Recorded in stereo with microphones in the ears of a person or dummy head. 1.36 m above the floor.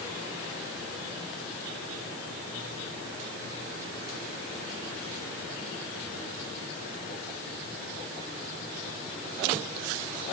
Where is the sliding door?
I don't hear a sliding door.